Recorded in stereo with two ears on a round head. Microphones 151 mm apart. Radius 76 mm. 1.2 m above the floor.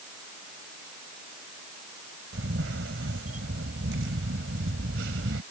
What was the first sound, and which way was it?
A camera shutter, 85° right.